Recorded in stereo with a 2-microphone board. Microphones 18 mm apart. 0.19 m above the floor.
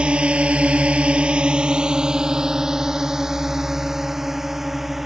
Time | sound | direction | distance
0.0 | a drone | 60° right (ahead or behind) | ?